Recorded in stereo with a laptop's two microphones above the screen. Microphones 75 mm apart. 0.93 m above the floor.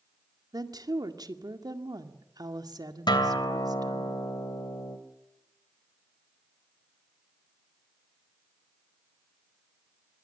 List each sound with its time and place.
0.5 s a woman speaking: 60° right (ahead or behind), 1.9 m
3.1 s a guitar: 80° left, 2.5 m